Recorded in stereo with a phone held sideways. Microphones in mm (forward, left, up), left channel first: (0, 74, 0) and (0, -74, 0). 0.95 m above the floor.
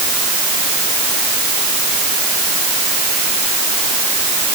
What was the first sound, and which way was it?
Only background noise.